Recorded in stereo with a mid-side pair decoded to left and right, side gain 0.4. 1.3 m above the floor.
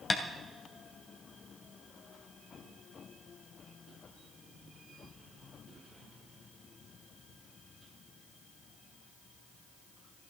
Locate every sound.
0.1 s tapping: 30° left, 3 m